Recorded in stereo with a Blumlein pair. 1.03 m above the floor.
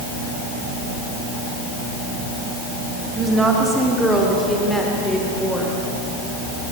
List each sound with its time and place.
3.2 s a woman speaking: 15° right, 2.5 m; by 5.7 s 10° left, 4.5 m